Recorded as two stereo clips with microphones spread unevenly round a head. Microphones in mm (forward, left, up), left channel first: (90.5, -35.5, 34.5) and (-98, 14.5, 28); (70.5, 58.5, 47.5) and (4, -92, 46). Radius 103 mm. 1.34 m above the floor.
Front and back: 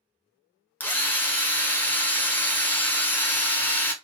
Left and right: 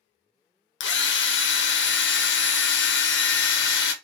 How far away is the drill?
About 0.7 m.